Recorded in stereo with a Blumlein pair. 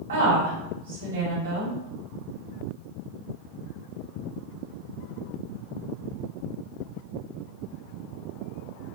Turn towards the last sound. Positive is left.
turn(degrees=-70)